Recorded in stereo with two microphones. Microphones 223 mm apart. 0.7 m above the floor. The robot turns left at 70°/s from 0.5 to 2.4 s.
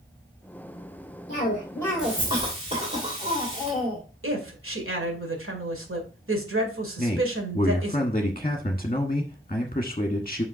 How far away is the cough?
About 2.5 m.